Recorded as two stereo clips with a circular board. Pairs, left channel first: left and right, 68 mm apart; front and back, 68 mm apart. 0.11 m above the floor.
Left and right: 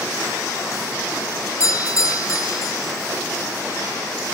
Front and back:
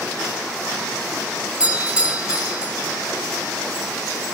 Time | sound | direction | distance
1.6 | a doorbell | 110° left | 2.5 m